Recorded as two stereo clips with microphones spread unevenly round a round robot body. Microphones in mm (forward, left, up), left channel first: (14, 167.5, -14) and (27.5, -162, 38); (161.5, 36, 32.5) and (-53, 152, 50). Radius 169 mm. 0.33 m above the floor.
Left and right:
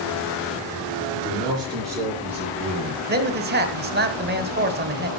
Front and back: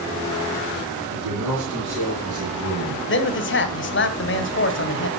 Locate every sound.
1.1 s a man speaking: 165° right, 6.5 m; by 3.0 s straight behind, 5.5 m
3.1 s a man speaking: 25° right, 1.4 m